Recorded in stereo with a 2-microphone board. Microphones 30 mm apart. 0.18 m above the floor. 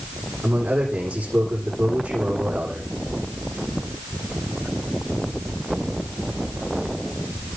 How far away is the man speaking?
About 9.5 m.